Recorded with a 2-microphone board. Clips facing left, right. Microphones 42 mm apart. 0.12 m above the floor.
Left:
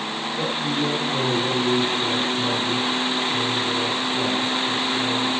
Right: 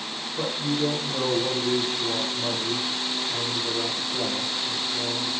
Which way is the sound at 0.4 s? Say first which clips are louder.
Left 1 dB; 40° right (ahead or behind).